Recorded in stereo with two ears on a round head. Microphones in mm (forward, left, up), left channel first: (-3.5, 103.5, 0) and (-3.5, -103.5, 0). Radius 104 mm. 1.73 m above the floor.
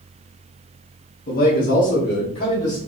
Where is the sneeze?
No sneeze in this recording.